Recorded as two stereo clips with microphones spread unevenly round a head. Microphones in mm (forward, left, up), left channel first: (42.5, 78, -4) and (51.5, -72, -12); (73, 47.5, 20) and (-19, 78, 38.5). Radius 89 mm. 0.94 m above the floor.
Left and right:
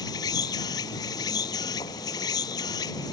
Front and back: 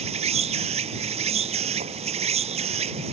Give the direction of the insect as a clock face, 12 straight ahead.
7 o'clock.